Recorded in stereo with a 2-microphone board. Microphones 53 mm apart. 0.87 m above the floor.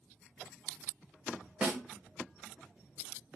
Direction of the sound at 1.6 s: 20° right (ahead or behind).